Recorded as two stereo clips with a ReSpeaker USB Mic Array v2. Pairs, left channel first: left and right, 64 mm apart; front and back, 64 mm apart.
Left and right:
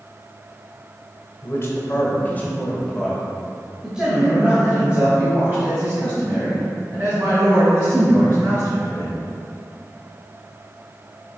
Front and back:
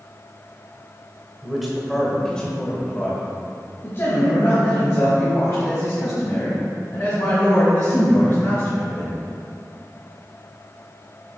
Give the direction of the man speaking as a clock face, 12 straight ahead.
9 o'clock.